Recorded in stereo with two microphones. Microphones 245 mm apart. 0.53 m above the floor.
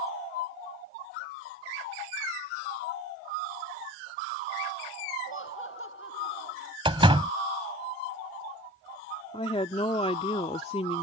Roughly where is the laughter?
Left.